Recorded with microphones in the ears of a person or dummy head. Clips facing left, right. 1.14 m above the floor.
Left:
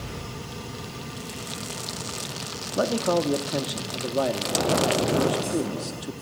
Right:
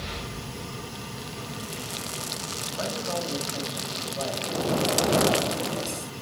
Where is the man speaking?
75° left (ahead or behind), 2.0 m.